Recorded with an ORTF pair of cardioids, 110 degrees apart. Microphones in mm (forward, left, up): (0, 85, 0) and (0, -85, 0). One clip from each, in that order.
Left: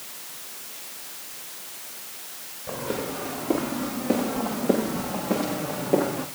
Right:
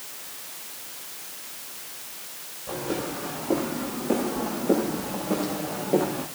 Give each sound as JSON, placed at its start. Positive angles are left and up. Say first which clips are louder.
{"t": 2.7, "sound": "footsteps", "louder": "even", "azimuth_deg": 15, "distance_m": 8.5}